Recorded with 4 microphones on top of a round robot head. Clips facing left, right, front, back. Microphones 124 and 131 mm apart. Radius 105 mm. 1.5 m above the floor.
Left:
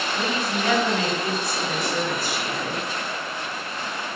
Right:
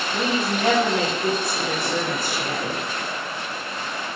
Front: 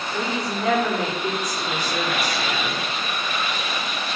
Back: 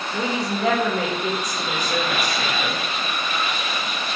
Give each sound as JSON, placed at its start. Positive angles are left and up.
{"t": 0.1, "sound": "a woman speaking", "azimuth_deg": -140, "distance_m": 2.5}